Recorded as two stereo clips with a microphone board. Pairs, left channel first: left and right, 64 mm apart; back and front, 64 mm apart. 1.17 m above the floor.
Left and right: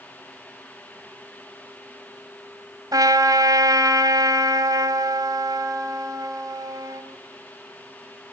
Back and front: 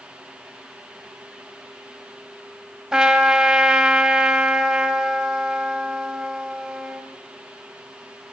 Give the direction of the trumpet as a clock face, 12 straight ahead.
2 o'clock.